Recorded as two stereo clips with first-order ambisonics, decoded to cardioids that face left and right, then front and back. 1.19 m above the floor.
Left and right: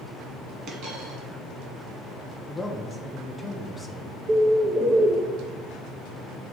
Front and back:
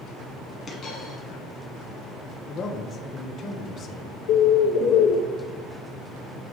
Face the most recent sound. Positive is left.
turn(degrees=-25)